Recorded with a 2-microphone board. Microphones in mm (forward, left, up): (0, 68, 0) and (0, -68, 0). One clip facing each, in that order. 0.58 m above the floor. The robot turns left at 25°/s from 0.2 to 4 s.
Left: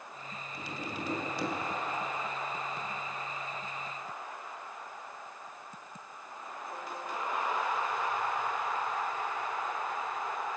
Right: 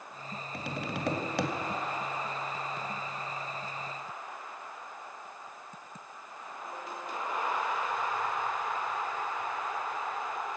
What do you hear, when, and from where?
0.5 s tapping: 60° right (ahead or behind), 2.5 m; by 1.5 s 80° right, 2.5 m